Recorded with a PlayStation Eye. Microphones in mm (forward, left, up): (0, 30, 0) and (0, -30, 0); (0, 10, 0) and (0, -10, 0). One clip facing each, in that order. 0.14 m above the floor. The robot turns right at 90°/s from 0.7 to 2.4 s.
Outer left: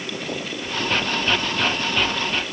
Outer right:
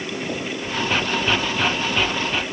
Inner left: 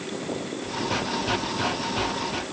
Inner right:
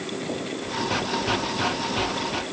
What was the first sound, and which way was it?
Only background noise.